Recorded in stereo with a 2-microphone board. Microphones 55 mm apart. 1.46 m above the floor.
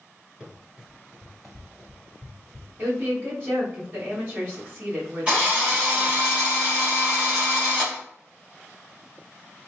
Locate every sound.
0.4 s running footsteps: 10° right (ahead or behind), 1.7 m; by 2.7 s 10° left (ahead or behind), 1.5 m
2.8 s a woman speaking: 40° right (ahead or behind), 2.0 m
5.3 s a drill: 20° right (ahead or behind), 1.6 m